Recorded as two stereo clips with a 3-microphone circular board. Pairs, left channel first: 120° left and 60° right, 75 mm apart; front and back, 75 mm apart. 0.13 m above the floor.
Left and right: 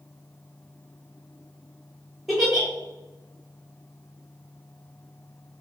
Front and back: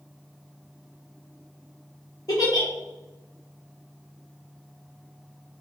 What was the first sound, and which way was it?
A giggle, 30° left.